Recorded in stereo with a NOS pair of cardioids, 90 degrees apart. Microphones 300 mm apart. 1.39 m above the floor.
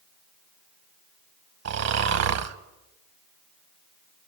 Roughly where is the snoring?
Ahead right.